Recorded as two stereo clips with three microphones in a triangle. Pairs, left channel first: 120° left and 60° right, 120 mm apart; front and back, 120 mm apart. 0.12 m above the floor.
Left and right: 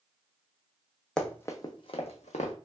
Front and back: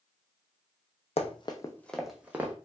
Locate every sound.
1.2 s running footsteps: 35° left, 0.5 m; by 2.5 s 110° left, 0.7 m